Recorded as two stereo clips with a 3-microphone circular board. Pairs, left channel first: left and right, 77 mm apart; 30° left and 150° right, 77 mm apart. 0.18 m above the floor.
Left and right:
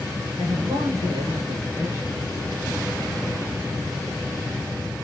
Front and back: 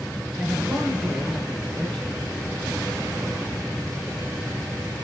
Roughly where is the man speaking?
Right.